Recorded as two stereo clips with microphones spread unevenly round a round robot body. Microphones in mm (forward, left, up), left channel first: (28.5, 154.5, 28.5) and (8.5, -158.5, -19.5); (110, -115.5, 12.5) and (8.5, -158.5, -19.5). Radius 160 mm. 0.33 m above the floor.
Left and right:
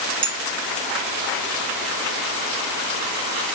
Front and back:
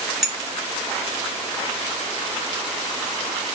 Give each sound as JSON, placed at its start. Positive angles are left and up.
{"t": 0.2, "sound": "a clink", "azimuth_deg": -110, "distance_m": 0.7}